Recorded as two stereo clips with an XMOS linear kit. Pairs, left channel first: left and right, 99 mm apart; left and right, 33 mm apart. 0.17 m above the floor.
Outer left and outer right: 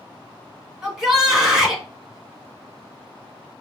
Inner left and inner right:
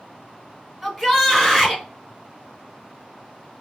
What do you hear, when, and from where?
0.8 s a shout: 5° right (ahead or behind), 1.8 m